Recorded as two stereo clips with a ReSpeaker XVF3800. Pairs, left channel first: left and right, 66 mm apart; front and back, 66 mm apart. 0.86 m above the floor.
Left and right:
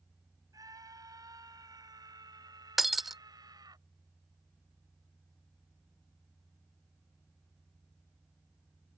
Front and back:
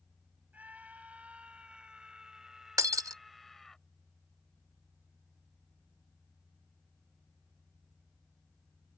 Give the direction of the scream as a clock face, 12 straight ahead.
4 o'clock.